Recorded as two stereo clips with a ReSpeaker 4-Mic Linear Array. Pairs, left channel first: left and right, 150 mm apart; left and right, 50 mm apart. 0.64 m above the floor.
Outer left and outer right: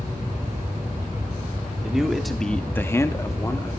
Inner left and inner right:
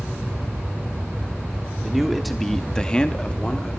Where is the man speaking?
5° right (ahead or behind), 1.6 m; by 3.8 s 15° left (ahead or behind), 1.7 m.